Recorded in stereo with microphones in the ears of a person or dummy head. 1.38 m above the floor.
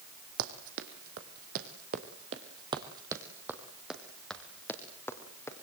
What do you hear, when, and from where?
0.4 s running footsteps: 55° right (ahead or behind), 2.5 m; by 5.6 s 15° left (ahead or behind), 3 m